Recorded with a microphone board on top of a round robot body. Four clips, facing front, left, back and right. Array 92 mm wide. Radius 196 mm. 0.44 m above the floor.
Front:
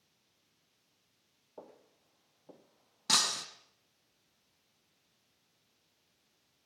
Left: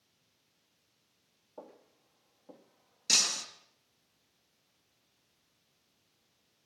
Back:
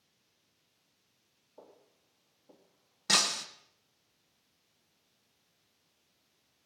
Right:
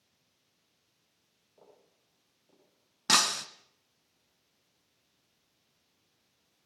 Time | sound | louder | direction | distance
1.6 | footsteps | left 9 dB, front 4 dB | 45° left | 3.5 m
3.1 | breaking glass | right 10 dB, back 2 dB | 85° right | 2 m